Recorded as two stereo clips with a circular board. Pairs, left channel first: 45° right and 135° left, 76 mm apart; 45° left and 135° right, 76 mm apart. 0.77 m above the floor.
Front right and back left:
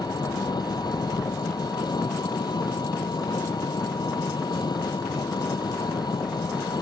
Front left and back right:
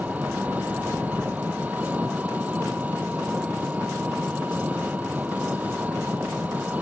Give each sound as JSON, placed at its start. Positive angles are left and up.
{"t": 0.0, "sound": "an engine running", "azimuth_deg": -65}